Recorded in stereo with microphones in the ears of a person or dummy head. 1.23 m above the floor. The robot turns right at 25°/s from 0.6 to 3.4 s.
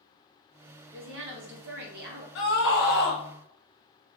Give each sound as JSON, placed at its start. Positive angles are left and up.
{"t": 0.9, "sound": "a woman speaking", "azimuth_deg": -95, "distance_m": 0.9}
{"t": 2.4, "sound": "a scream", "side_deg": 50, "distance_m": 0.9}